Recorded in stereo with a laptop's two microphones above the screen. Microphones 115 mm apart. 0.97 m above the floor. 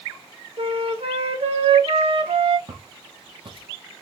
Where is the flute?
65° right (ahead or behind), 1.2 m.